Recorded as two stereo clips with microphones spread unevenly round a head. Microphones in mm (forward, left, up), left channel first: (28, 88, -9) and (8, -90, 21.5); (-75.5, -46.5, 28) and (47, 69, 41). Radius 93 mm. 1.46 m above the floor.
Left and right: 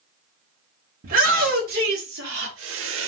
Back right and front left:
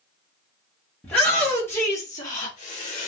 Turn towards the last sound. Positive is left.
turn(degrees=-80)